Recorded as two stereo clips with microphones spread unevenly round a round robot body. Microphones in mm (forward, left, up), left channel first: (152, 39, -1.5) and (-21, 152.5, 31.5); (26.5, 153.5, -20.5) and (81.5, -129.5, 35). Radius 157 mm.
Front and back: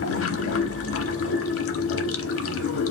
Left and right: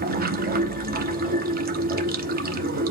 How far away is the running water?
About 0.7 m.